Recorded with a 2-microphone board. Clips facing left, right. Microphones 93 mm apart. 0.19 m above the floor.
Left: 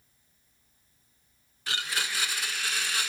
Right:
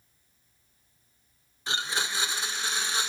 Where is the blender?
25° right (ahead or behind), 0.7 m.